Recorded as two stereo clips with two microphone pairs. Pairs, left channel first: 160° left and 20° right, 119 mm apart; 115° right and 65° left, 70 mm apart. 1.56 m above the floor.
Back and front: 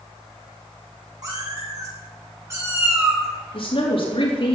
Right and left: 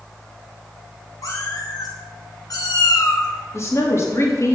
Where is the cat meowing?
75° right, 7 m; by 3.3 s 90° right, 5 m.